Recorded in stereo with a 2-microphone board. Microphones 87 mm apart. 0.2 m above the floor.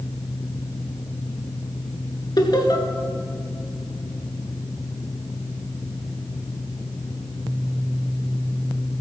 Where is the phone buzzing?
No phone buzzing in this recording.